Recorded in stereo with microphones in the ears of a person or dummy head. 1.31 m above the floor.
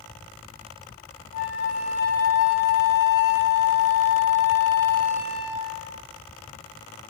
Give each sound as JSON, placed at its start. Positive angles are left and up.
{"t": 1.3, "sound": "a flute", "side_deg": 65, "distance_m": 2.5}